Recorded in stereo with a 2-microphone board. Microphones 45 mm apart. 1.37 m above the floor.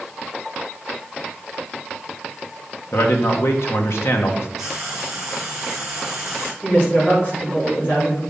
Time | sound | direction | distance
2.9 | a man speaking | 65° left (ahead or behind) | 1.4 m
4.6 | frying | 5° right (ahead or behind) | 3 m
6.6 | a woman speaking | 40° left (ahead or behind) | 4 m